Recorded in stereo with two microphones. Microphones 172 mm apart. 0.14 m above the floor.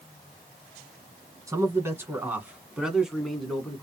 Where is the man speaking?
20° right (ahead or behind), 1.8 m; by 3.8 s 5° left (ahead or behind), 1.7 m.